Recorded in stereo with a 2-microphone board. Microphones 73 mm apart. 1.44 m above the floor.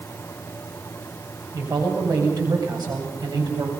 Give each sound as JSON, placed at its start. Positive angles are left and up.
{"t": 1.5, "sound": "a man speaking", "side_deg": -60, "distance_m": 7.0}